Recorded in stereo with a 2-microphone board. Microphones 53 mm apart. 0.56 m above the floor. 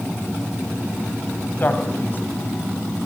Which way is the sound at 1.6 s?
35° left (ahead or behind).